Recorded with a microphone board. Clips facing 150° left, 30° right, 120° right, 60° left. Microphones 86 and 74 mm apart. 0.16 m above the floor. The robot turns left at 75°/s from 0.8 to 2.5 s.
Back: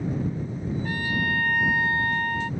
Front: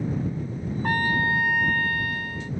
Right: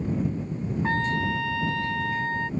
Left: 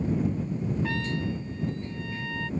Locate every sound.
0.8 s a trumpet: 65° right; by 2.5 s 175° left